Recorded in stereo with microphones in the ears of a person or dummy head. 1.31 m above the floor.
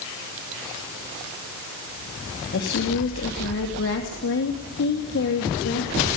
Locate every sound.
2.5 s a woman speaking: 65° left (ahead or behind), 2.5 m